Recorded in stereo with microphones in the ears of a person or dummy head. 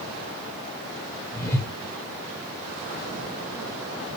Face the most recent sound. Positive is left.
turn(degrees=20)  # may be behind; listen again after turning